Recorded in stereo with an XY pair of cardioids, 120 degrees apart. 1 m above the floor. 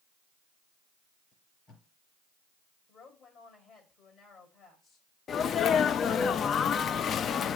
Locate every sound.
1.3 s tape being pulled: 55° left, 5 m
2.9 s a woman speaking: 50° left, 4.5 m
5.3 s a sneeze: 50° left, 0.5 m